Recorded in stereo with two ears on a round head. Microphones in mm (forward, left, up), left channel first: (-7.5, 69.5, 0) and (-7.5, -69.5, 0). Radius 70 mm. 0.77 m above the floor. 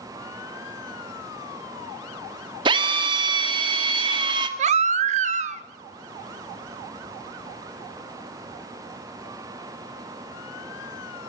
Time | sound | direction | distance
2.6 | a drill | 30° right (ahead or behind) | 1.7 m
4.6 | a baby crying | 50° right (ahead or behind) | 1.1 m